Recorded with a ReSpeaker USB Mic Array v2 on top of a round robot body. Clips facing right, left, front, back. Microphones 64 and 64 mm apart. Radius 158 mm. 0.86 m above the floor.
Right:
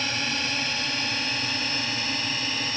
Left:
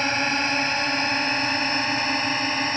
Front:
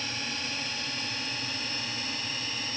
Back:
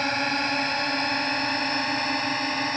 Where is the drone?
140° left.